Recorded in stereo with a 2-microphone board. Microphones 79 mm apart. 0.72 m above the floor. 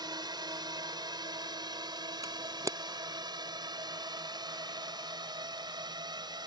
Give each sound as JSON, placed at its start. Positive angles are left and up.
{"t": 0.0, "sound": "a drone", "side_deg": -65}
{"t": 2.2, "sound": "a camera shutter", "side_deg": -45}